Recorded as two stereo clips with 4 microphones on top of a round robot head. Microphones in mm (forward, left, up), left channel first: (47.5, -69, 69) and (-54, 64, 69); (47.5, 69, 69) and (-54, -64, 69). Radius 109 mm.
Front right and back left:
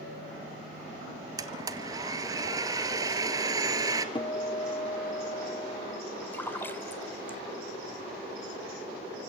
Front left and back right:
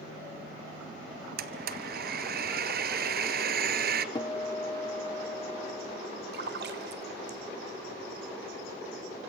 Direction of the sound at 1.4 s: 160° right.